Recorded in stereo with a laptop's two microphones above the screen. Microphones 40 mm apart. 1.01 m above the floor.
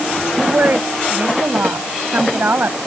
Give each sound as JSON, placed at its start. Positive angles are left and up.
{"t": 0.4, "sound": "a woman speaking", "side_deg": -50}